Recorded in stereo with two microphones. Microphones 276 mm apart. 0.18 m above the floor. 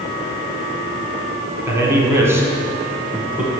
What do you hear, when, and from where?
1.7 s a man speaking: 10° right (ahead or behind), 1.5 m; by 3.6 s 5° right (ahead or behind), 1.6 m